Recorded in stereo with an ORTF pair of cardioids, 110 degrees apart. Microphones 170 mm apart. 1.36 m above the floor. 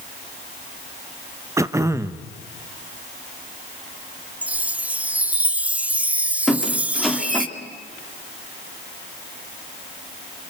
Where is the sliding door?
I don't hear a sliding door.